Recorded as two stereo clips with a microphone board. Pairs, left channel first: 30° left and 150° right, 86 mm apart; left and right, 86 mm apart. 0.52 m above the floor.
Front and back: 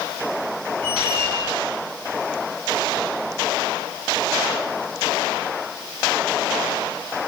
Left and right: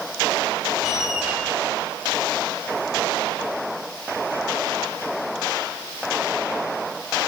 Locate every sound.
0.8 s a squeak: 175° right, 6 m